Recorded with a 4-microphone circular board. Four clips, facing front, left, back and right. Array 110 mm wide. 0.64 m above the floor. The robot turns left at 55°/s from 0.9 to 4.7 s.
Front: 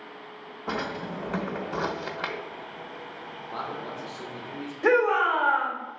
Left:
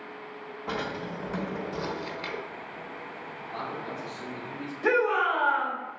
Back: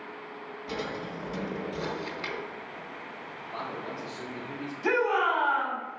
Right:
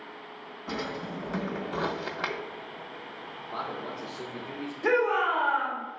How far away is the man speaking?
About 2.5 m.